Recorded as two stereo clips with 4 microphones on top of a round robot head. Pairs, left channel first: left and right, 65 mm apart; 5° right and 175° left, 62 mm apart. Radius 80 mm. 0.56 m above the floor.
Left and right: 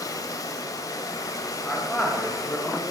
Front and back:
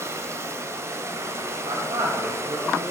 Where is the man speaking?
170° left, 3.5 m.